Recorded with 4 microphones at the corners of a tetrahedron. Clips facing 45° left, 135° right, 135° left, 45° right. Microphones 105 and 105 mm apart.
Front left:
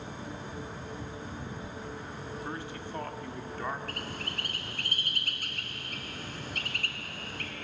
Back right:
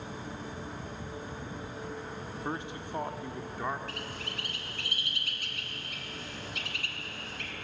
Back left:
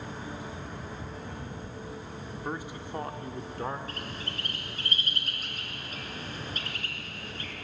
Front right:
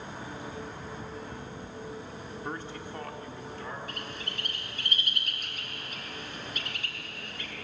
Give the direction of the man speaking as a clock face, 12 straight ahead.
5 o'clock.